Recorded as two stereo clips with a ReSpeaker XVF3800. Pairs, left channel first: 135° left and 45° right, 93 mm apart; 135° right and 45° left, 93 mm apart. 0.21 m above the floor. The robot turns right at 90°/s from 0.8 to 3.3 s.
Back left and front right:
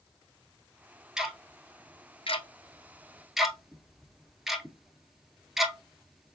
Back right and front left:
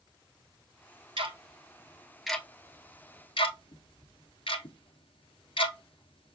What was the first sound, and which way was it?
Ticking, 35° left.